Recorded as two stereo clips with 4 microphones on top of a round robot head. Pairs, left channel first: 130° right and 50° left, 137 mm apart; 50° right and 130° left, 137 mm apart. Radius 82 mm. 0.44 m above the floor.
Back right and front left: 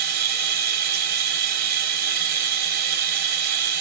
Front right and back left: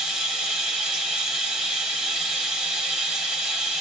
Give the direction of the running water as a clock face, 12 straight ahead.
10 o'clock.